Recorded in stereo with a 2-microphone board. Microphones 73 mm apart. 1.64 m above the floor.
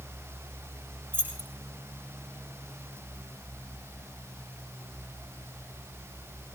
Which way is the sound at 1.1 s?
35° right (ahead or behind).